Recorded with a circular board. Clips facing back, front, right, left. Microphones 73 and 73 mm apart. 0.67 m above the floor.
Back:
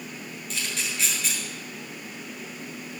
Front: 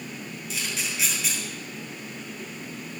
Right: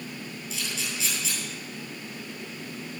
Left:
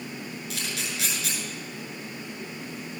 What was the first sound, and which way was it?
A camera shutter, 85° left.